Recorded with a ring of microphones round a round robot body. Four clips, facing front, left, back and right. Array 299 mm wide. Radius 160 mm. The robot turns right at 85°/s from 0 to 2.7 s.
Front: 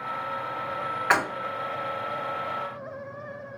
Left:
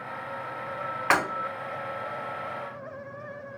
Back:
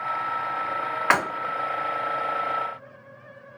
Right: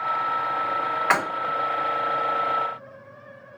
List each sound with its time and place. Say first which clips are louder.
1.1 s breaking glass: even, back 1 dB; 175° left, 2 m; by 1.2 s 175° right, 2 m